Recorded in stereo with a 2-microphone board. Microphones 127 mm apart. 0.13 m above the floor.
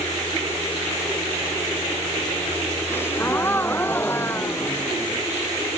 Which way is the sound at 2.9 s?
15° left (ahead or behind).